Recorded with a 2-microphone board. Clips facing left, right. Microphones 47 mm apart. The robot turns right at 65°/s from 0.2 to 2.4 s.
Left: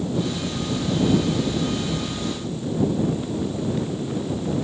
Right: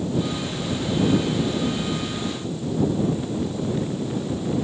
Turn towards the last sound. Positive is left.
No sound to turn to.